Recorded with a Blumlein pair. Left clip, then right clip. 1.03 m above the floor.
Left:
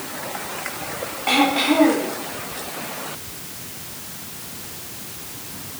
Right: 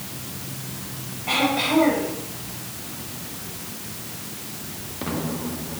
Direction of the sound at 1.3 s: 35° left.